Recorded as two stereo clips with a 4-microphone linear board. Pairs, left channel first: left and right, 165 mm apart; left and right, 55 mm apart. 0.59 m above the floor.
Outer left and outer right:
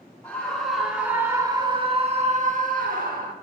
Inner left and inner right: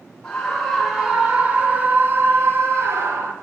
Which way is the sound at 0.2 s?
10° left (ahead or behind).